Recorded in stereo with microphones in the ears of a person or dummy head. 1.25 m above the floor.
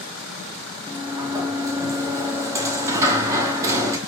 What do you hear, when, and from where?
0.9 s a sliding door: 15° right (ahead or behind), 1.1 m